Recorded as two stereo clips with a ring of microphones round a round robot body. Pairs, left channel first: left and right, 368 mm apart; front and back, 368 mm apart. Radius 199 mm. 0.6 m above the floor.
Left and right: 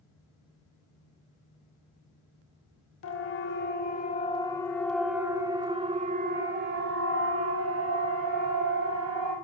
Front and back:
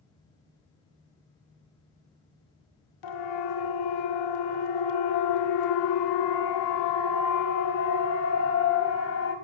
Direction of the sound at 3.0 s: 35° left.